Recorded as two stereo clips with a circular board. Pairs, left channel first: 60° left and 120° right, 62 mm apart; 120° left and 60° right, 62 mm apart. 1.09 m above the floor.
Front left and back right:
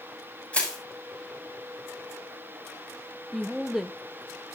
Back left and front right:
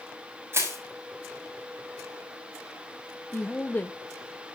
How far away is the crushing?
About 6.5 m.